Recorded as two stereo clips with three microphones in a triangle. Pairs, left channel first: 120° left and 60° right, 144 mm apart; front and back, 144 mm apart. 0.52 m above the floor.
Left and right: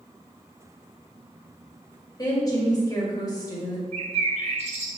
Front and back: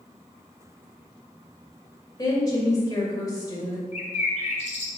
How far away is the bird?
About 1.3 m.